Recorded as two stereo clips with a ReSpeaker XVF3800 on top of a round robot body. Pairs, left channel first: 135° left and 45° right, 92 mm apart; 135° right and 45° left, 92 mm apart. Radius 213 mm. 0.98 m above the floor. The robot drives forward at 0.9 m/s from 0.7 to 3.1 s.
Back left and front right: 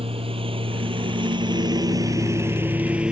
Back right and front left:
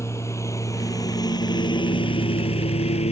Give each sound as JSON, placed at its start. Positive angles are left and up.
{"t": 0.0, "sound": "a lawn mower", "azimuth_deg": -70}